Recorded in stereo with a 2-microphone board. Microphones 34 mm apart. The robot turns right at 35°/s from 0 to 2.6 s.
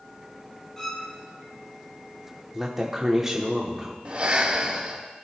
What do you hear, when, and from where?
0.8 s a violin: 15° left (ahead or behind), 2.5 m; by 1.1 s 5° left (ahead or behind), 2.5 m
2.5 s a woman speaking: 15° right (ahead or behind), 1.0 m
4.0 s breathing: 45° right (ahead or behind), 1.6 m